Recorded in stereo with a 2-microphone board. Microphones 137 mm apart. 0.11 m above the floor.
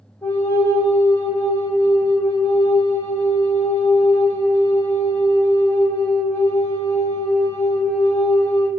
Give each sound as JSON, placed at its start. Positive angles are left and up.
{"t": 0.2, "sound": "a flute", "side_deg": 15, "distance_m": 1.3}